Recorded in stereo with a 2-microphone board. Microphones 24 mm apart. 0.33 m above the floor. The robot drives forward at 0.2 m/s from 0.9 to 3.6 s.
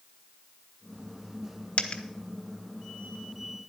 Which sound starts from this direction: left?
A dropped coin, at 1.8 s.